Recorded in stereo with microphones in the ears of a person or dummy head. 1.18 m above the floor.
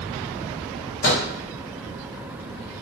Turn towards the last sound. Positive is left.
turn(degrees=55)  # may be behind; listen again after turning